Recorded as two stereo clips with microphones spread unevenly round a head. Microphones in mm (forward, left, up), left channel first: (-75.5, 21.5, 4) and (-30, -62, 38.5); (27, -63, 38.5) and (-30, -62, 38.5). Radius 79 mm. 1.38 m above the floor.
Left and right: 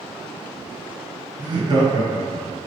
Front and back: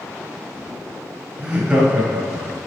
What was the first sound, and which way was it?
Laughter, 110° right.